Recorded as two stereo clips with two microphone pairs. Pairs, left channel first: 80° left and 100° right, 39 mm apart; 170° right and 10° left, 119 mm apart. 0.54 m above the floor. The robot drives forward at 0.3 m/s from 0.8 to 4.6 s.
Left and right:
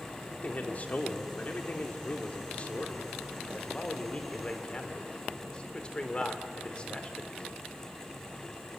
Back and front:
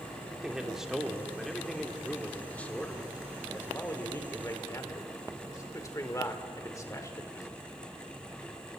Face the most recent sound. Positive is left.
turn(degrees=135)